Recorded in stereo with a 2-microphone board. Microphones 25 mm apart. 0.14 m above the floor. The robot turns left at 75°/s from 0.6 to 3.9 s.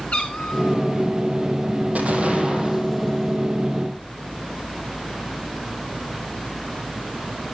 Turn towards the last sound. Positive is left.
turn(degrees=105)